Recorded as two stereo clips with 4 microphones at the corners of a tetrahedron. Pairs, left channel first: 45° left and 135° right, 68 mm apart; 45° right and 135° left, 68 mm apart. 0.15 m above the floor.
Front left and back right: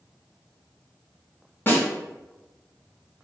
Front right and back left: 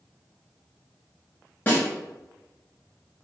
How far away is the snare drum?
About 1.0 m.